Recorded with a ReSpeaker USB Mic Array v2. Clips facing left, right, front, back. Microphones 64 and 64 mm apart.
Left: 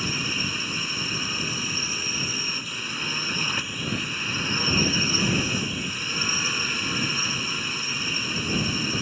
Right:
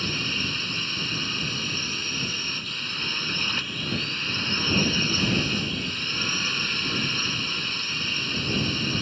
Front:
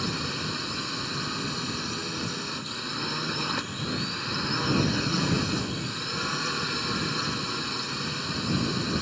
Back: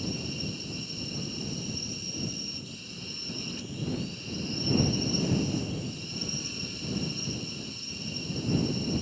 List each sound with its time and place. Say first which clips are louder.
0.0 s a drone: even, front 4 dB; 10° left